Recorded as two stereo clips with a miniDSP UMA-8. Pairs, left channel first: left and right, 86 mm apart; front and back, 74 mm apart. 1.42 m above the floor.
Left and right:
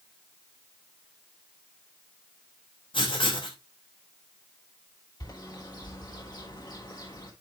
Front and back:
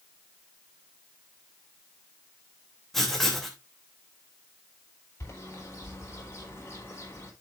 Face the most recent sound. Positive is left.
turn(degrees=55)